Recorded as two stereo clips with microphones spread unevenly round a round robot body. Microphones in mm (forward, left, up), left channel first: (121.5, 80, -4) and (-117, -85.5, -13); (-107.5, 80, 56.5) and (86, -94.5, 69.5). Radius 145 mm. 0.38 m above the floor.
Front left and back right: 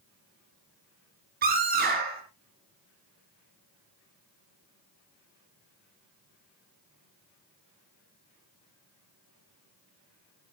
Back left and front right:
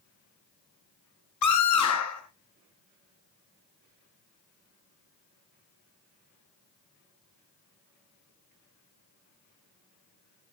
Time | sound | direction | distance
1.4 | a scream | 155° left | 5 m